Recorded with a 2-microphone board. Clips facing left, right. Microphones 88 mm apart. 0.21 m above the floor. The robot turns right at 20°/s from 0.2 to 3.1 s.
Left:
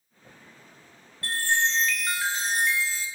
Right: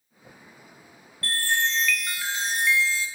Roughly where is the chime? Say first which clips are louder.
Even; ahead left.